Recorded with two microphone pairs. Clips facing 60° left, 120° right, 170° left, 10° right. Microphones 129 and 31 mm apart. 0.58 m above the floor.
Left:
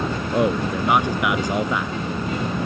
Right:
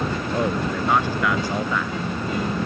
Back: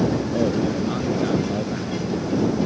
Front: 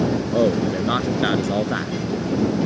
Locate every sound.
0.3 s a man speaking: 15° right